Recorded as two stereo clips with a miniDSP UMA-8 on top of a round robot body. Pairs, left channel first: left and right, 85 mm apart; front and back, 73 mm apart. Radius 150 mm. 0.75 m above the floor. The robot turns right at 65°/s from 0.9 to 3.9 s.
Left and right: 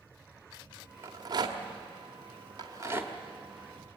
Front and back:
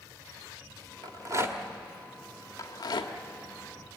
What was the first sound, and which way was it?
A rattle, 150° right.